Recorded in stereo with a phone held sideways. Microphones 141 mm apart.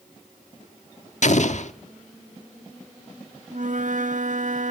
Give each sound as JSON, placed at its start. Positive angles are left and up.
{"t": 1.2, "sound": "an explosion", "side_deg": 55, "distance_m": 1.2}
{"t": 3.5, "sound": "a flute", "side_deg": -60, "distance_m": 1.3}